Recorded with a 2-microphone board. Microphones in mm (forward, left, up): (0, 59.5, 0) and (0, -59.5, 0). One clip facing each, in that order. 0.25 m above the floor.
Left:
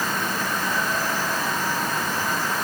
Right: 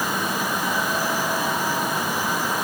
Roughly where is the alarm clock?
I don't hear an alarm clock.